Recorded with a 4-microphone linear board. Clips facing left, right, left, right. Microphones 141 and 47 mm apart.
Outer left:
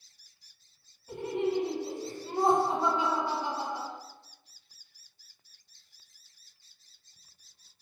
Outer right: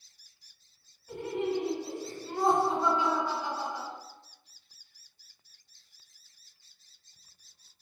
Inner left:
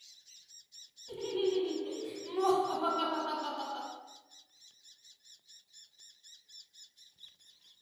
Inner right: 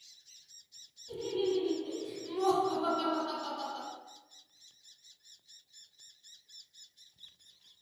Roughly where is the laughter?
Left.